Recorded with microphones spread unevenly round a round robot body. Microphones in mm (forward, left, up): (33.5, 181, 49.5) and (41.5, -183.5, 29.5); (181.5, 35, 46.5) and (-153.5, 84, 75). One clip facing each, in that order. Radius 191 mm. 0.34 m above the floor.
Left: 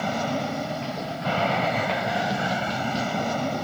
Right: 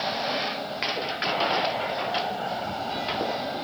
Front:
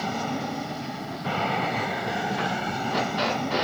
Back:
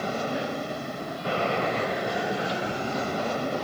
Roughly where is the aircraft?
Ahead left.